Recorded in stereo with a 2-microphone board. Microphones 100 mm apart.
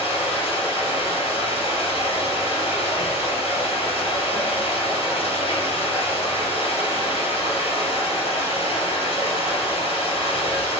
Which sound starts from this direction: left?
Running water, at 0.0 s.